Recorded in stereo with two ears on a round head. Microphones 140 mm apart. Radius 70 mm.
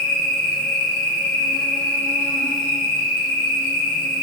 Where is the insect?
55° left (ahead or behind), 1.6 m.